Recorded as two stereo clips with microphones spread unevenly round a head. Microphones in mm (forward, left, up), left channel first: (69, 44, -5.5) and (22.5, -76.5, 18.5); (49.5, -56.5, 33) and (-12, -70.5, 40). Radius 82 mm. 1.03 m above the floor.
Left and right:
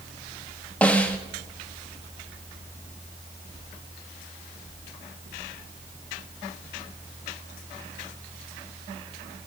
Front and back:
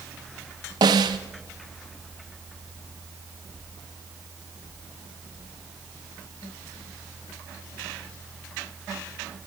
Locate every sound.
0.8 s a snare drum: 150° left, 0.9 m